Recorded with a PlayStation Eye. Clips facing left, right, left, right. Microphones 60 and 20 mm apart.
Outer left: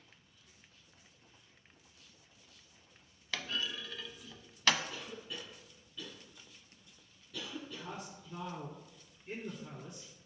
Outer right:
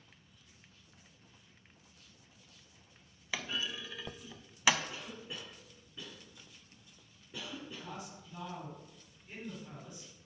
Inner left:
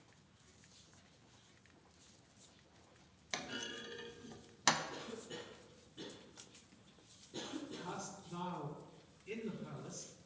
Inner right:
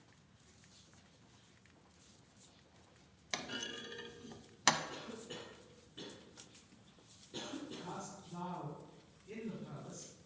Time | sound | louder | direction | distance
3.3 | a clunk | even, inner right 1 dB | 10° right (ahead or behind) | 0.5 m
4.9 | a cough | even, even | 30° right (ahead or behind) | 2 m
7.8 | a man speaking | outer left 1 dB, inner left 1 dB | 65° left (ahead or behind) | 4 m